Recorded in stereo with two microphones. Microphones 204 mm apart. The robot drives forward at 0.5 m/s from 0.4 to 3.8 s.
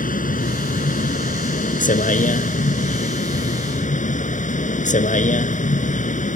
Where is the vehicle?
45° left (ahead or behind); by 6.4 s 40° left (ahead or behind).